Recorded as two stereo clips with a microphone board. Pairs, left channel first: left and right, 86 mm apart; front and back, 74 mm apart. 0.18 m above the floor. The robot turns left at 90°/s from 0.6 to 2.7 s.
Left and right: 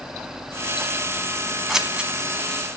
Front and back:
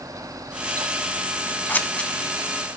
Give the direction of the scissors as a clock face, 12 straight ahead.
12 o'clock.